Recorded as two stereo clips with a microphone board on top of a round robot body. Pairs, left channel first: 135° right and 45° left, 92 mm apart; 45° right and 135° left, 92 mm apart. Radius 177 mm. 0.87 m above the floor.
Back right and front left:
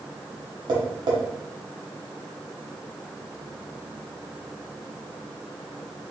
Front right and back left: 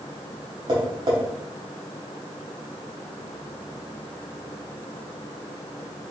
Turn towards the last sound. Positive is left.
turn(degrees=90)